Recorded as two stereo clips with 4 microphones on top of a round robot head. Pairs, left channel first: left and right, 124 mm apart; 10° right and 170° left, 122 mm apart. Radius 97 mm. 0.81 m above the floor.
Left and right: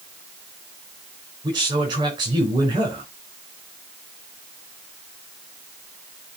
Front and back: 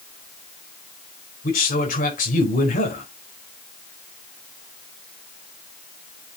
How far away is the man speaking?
About 4 m.